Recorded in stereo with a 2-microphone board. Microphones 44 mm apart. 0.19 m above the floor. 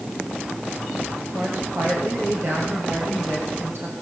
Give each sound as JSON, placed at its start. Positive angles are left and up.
{"t": 1.3, "sound": "a woman speaking", "side_deg": -75, "distance_m": 8.0}